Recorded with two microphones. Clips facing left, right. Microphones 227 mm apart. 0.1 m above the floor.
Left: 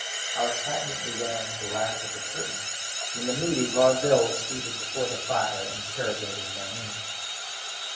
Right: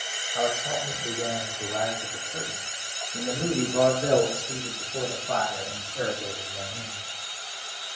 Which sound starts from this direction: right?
A man speaking, at 0.3 s.